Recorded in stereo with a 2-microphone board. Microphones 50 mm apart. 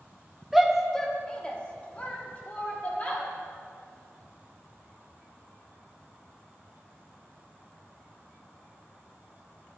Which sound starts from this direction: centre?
A shout, at 0.5 s.